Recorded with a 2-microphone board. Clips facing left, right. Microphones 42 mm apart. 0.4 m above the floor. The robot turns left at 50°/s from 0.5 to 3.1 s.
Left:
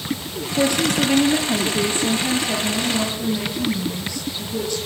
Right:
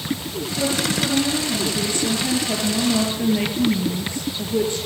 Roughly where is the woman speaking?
Left.